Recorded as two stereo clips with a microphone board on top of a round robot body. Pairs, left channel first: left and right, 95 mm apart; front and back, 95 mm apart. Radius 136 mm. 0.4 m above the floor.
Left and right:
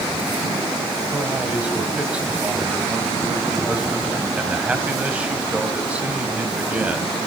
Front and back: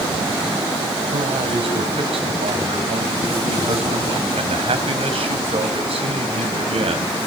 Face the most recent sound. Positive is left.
turn(degrees=-165)